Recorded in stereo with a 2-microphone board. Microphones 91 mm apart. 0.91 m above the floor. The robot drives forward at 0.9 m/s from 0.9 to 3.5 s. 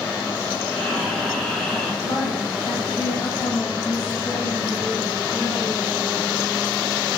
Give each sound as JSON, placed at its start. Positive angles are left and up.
{"t": 0.7, "sound": "breathing", "side_deg": 5, "distance_m": 6.0}
{"t": 2.0, "sound": "a woman speaking", "side_deg": 55, "distance_m": 5.0}